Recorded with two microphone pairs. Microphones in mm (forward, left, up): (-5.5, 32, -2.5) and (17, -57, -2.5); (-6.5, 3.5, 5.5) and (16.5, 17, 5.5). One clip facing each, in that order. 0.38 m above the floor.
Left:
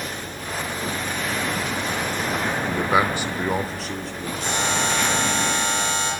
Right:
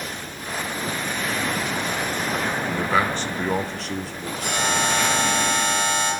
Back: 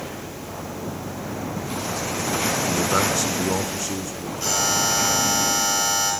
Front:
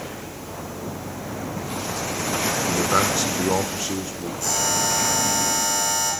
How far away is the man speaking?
About 0.9 m.